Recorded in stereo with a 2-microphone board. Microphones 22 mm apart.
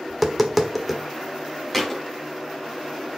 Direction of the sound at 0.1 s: Centre (ahead or behind).